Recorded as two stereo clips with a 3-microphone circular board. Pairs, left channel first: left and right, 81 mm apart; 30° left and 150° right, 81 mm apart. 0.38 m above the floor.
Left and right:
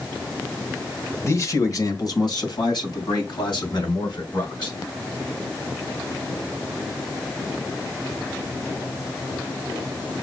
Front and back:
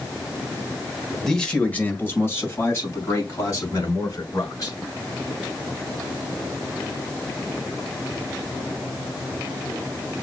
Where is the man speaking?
115° left, 1.3 m; by 4.8 s 75° left, 4.5 m.